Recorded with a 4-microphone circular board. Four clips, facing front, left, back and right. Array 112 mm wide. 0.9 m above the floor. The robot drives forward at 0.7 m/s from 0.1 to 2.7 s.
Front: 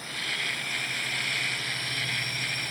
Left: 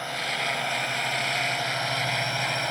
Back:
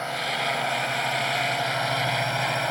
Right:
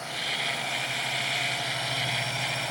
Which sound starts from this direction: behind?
A drone, at 0.0 s.